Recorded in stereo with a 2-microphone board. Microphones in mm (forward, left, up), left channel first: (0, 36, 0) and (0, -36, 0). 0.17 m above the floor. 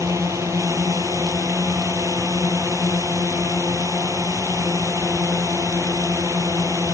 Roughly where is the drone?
Right.